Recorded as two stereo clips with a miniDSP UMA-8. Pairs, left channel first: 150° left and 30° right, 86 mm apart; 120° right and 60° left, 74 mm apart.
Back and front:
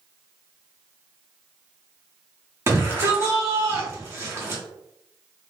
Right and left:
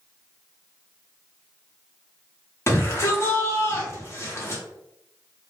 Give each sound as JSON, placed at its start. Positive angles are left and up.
{"t": 2.7, "sound": "a shout", "azimuth_deg": -80, "distance_m": 1.1}